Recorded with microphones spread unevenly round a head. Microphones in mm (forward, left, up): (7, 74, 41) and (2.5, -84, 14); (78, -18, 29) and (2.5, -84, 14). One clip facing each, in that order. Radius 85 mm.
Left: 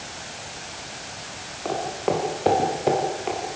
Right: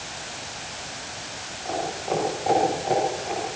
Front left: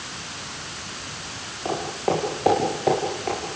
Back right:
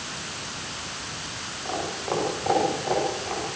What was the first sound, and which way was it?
Footsteps, 75° left.